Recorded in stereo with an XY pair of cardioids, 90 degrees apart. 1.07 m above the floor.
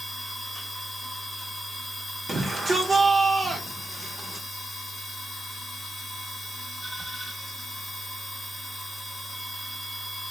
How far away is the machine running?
About 1.1 m.